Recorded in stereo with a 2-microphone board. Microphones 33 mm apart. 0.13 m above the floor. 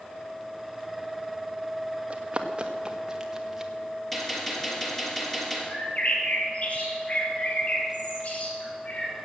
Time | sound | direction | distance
2.1 | running footsteps | 35° right (ahead or behind) | 1.6 m
4.1 | a gunshot | 5° left (ahead or behind) | 3.5 m
5.7 | a bird | 45° left (ahead or behind) | 3 m